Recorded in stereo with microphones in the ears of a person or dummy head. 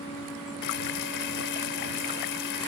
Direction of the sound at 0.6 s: 65° left (ahead or behind).